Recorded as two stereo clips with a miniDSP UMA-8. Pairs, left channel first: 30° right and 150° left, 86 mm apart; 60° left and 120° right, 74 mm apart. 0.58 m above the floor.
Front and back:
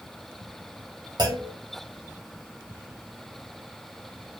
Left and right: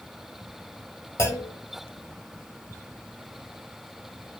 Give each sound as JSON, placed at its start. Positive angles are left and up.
{"t": 1.2, "sound": "a clunk", "azimuth_deg": 110, "distance_m": 1.5}